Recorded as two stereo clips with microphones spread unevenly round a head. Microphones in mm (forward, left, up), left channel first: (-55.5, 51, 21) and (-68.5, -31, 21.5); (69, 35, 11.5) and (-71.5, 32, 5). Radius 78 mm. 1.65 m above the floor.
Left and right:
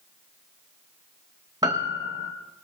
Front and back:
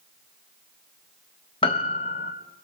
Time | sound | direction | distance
1.6 | a piano | 45° right | 1.1 m